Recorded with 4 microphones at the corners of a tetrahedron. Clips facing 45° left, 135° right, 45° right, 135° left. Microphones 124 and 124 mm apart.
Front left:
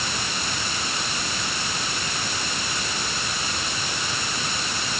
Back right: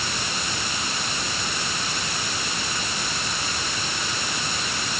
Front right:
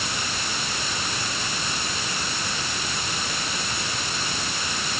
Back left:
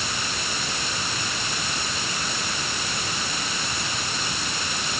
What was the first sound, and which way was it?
Only background noise.